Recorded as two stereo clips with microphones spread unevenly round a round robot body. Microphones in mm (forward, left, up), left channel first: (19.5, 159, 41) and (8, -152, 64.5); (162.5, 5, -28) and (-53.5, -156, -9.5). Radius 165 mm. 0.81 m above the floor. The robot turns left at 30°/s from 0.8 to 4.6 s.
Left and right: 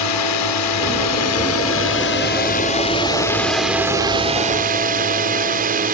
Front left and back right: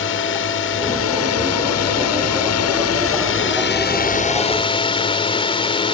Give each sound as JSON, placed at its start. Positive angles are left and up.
{"t": 0.0, "sound": "a drone", "azimuth_deg": 85}